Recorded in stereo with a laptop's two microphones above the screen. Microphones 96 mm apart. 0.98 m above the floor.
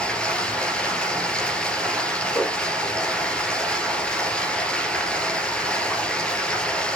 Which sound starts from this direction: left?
A whoosh, at 2.3 s.